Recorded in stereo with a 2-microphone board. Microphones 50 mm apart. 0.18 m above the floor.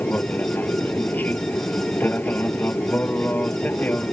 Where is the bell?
I don't hear a bell.